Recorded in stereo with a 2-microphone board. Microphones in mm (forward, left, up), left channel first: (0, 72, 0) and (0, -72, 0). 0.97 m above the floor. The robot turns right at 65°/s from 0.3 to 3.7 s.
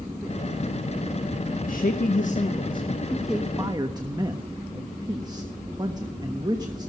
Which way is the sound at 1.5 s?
65° left.